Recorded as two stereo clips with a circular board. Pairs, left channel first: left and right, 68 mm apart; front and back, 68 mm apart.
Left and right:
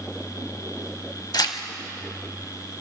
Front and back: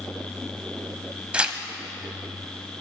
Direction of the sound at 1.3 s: 105° left.